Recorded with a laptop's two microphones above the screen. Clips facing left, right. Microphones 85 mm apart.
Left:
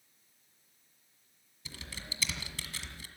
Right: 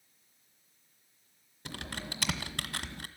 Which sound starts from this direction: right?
Typing on a keyboard, at 1.6 s.